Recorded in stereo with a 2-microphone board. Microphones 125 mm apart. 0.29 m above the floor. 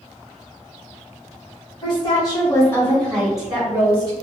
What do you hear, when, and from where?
1.8 s a woman speaking: 40° left (ahead or behind), 1.2 m; by 4.1 s 25° right (ahead or behind), 1.0 m